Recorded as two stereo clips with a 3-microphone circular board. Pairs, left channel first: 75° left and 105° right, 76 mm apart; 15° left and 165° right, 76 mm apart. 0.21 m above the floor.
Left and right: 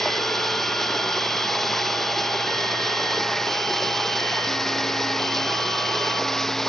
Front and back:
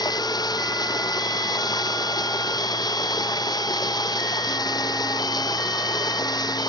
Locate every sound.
0.0 s running water: 10° right